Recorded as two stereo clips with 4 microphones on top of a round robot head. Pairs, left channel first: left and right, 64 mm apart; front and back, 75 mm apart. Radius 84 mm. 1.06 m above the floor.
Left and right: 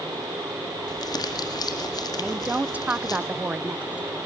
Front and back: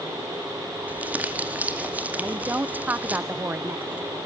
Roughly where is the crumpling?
Left.